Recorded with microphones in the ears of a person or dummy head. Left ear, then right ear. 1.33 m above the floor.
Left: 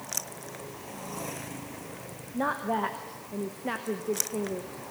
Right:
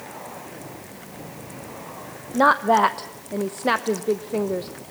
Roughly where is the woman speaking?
Right.